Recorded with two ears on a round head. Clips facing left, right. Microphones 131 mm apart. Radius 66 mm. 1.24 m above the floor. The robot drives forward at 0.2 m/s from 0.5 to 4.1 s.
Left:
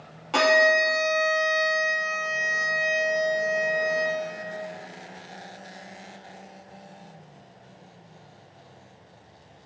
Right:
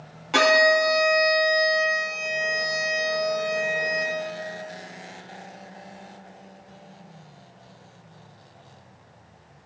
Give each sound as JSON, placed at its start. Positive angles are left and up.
{"t": 0.3, "sound": "a violin", "side_deg": 0, "distance_m": 2.5}